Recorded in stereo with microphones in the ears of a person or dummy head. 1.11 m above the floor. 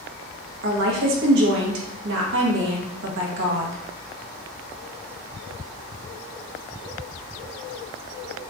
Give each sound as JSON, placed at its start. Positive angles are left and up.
{"t": 0.6, "sound": "a woman speaking", "side_deg": -60, "distance_m": 1.1}